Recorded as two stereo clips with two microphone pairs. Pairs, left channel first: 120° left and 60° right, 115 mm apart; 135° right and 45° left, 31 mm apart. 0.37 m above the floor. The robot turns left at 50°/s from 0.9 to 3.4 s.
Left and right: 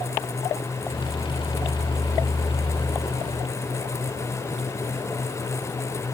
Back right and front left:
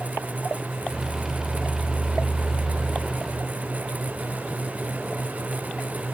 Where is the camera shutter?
I don't hear a camera shutter.